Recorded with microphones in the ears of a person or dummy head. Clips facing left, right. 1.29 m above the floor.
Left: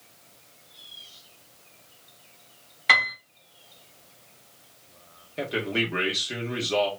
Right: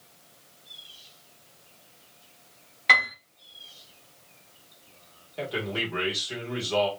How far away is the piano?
About 1.2 m.